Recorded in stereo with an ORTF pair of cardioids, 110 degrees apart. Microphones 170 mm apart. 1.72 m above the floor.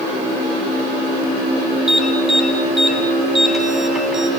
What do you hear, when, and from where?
1.9 s an alarm: straight ahead, 6.5 m